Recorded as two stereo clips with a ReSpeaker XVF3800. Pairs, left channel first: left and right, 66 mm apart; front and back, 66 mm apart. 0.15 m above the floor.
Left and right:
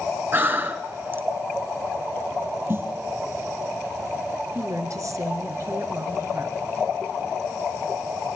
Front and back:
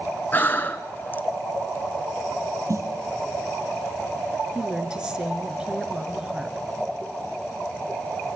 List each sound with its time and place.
0.3 s breathing: 50° right, 1.2 m
2.7 s a snare drum: 145° right, 3 m
4.5 s a woman speaking: 105° right, 2.5 m